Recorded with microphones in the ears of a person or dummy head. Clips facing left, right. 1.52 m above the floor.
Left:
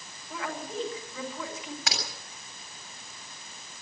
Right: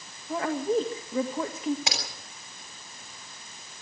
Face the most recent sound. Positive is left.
turn(degrees=-15)  # may be behind; listen again after turning